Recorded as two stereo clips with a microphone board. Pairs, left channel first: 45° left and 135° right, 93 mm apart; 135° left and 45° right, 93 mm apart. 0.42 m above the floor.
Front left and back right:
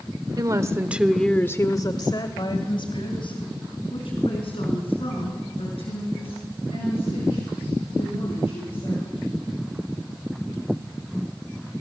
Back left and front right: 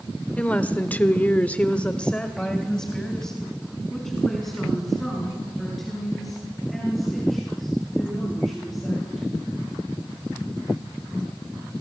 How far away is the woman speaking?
About 1.4 m.